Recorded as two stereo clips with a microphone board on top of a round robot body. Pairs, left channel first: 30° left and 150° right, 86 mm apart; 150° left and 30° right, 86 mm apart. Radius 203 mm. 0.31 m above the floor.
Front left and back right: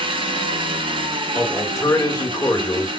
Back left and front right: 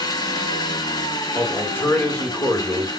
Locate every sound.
0.0 s an engine running: 165° right, 1.6 m
1.4 s a man speaking: 85° left, 2 m